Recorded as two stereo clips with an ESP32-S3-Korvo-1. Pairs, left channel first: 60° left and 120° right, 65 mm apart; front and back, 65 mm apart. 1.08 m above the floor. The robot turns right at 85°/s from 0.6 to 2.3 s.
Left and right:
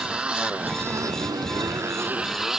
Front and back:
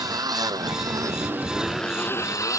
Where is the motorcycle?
170° left; by 2.6 s 35° right.